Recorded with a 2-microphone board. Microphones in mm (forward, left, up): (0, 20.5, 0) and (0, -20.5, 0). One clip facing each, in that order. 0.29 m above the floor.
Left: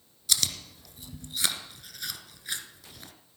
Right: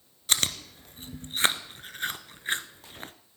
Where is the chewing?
40° right (ahead or behind), 0.6 m.